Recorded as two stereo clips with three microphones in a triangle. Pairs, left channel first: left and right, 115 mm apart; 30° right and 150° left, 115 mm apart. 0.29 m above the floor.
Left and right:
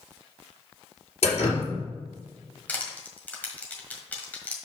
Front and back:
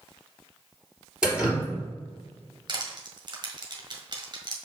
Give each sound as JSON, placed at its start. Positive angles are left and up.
{"t": 1.2, "sound": "dripping", "azimuth_deg": 70, "distance_m": 2.5}
{"t": 2.7, "sound": "crushing", "azimuth_deg": 160, "distance_m": 1.5}